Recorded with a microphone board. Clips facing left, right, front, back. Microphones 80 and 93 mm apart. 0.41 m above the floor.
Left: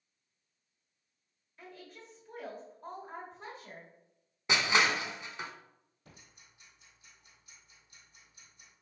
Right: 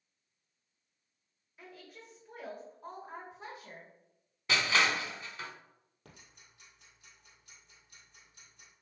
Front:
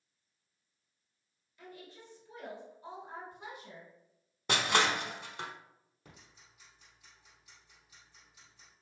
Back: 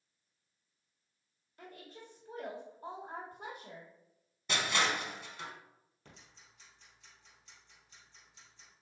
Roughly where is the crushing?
Ahead.